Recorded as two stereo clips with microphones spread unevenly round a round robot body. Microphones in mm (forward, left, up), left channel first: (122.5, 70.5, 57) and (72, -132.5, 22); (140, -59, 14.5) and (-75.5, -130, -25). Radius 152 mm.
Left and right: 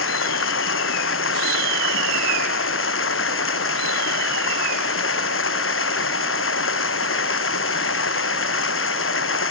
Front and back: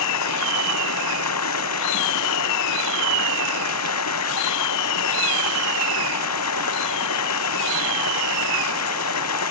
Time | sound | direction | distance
0.0 | running water | 55° left | ?